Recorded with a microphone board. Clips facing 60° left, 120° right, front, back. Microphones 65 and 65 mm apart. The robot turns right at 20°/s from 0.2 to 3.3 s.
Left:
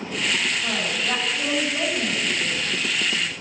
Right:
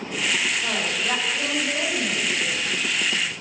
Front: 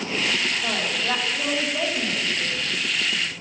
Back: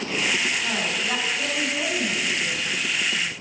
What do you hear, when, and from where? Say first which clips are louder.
0.6 s a woman speaking: even, front 1 dB; 55° right, 4 m; by 3.3 s straight ahead, 4 m